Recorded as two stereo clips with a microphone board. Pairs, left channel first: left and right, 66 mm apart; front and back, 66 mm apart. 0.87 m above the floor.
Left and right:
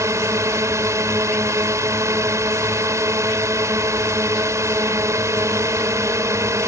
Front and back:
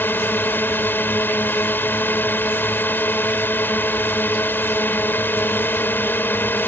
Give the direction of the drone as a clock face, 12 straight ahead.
2 o'clock.